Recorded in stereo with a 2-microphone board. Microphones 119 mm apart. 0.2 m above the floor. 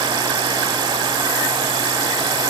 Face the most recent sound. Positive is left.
No sound to turn to.